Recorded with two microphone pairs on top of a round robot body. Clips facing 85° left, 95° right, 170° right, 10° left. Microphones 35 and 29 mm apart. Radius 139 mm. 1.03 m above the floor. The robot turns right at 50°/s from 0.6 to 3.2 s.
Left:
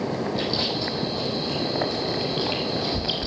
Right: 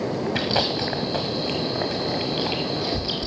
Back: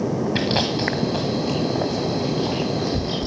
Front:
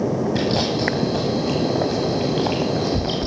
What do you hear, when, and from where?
0.3 s chewing: 90° right, 1.1 m; by 3.3 s 40° left, 1.1 m